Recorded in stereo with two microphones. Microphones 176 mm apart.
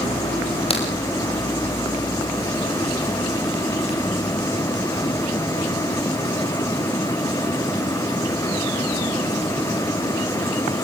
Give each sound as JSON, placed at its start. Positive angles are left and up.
{"t": 0.7, "sound": "a crack", "side_deg": 30, "distance_m": 7.0}